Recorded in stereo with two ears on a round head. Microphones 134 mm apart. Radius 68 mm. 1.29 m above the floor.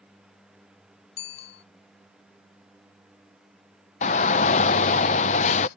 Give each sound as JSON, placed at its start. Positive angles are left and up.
{"t": 1.2, "sound": "a bicycle bell", "side_deg": 80}
{"t": 4.0, "sound": "a shout", "side_deg": 45}